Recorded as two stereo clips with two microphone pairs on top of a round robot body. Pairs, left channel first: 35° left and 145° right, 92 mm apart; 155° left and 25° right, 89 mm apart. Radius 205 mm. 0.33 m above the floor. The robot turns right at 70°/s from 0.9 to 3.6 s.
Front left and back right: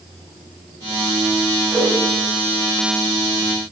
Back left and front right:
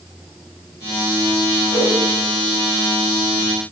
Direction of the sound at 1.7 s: 100° right.